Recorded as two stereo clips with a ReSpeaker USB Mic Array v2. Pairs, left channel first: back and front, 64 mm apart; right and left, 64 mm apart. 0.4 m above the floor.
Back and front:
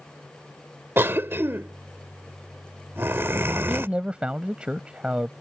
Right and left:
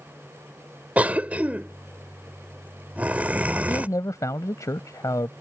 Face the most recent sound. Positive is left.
turn(degrees=-70)